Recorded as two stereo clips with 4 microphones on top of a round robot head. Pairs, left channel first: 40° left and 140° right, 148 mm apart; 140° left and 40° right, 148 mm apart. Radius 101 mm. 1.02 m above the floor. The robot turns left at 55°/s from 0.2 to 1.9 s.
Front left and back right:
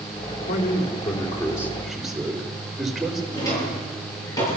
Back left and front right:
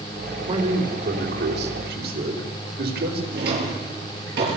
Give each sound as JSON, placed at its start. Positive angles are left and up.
{"t": 0.5, "sound": "a man speaking", "azimuth_deg": 25, "distance_m": 3.5}
{"t": 3.3, "sound": "a drawer", "azimuth_deg": -30, "distance_m": 10.0}